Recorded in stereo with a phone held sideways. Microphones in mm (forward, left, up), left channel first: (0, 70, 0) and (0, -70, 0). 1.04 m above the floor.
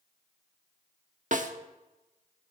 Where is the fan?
No fan in this recording.